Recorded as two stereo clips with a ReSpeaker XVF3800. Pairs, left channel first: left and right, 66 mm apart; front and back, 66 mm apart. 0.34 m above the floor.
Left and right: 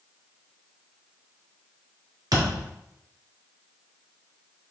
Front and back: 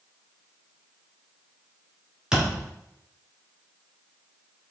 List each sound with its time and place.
2.3 s a thud: 100° right, 1.7 m